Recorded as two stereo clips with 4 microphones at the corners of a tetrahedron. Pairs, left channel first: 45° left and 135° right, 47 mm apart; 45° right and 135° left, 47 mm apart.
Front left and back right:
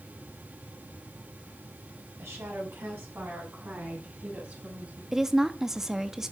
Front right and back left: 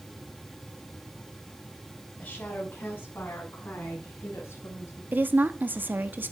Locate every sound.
2.2 s a woman speaking: 105° right, 5.5 m; by 5.0 s 80° right, 8 m
5.1 s a woman speaking: 150° left, 1.0 m